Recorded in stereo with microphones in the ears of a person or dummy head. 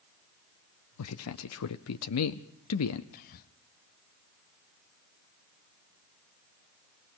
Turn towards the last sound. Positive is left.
turn(degrees=50)  # may be behind; listen again after turning